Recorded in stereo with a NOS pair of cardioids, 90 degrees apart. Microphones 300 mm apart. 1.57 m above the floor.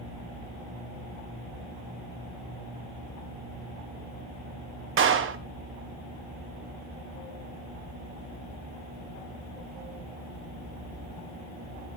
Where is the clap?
45° right, 1.0 m.